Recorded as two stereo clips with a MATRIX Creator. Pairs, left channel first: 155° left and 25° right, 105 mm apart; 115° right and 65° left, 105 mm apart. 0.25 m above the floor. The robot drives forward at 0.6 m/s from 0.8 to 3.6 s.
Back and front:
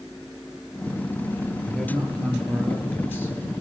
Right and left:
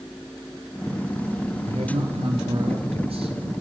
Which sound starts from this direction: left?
A man speaking, at 1.7 s.